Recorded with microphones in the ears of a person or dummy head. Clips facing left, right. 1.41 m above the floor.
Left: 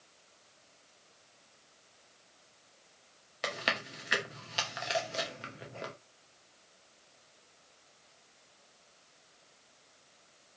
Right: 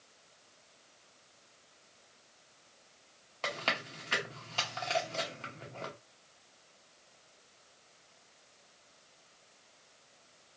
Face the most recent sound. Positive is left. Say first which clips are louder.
# left 1 dB
turn(degrees=15)  # may be behind; listen again after turning